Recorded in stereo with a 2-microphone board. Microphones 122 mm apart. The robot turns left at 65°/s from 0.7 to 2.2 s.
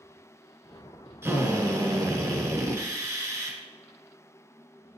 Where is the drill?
20° right (ahead or behind), 0.9 m; by 3.6 s 25° right (ahead or behind), 0.9 m.